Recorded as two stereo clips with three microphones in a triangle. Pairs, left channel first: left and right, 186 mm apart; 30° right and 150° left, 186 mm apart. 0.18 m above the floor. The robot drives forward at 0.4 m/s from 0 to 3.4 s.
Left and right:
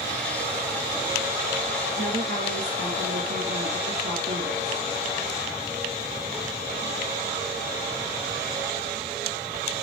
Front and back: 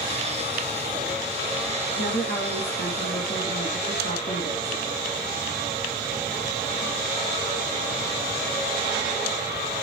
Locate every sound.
2.0 s a woman speaking: 50° right, 3 m; by 4.8 s 60° right, 3 m